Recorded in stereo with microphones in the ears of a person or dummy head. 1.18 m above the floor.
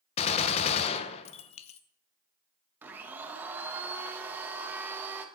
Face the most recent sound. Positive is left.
turn(degrees=-10)  # may be behind; listen again after turning